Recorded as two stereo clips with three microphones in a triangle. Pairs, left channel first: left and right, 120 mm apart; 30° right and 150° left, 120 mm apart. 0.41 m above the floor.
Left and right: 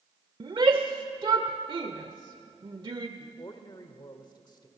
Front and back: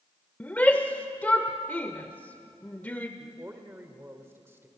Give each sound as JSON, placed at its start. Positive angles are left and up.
{"t": 0.4, "sound": "a shout", "azimuth_deg": -100, "distance_m": 1.0}
{"t": 3.2, "sound": "a man speaking", "azimuth_deg": 95, "distance_m": 1.4}